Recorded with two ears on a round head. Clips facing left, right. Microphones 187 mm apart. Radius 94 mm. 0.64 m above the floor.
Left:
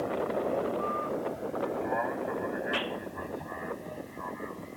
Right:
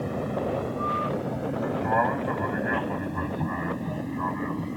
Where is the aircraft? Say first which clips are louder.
Right 1 dB; 65° right (ahead or behind).